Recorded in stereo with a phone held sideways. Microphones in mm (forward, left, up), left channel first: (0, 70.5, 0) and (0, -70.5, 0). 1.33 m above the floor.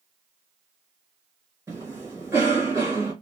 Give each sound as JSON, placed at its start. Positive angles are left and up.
{"t": 1.7, "sound": "a cough", "side_deg": -20, "distance_m": 1.9}